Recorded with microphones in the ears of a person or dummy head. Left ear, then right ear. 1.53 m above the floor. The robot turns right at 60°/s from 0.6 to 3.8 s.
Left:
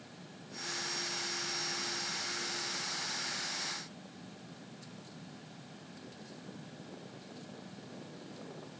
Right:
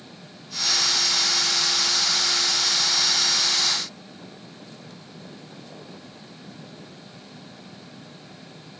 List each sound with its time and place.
Only background noise.